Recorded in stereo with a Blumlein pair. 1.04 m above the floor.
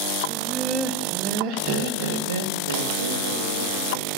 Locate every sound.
0.3 s laughter: straight ahead, 0.9 m; by 4.1 s 70° right, 2 m